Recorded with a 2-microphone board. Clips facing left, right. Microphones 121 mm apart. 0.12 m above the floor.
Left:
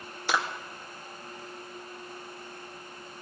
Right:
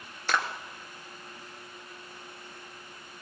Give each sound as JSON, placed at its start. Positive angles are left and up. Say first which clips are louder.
{"t": 0.3, "sound": "a clap", "louder": "even", "side_deg": 10, "distance_m": 1.7}